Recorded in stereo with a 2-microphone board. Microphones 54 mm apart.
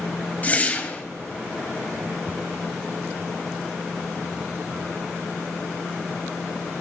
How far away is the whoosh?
About 1.7 m.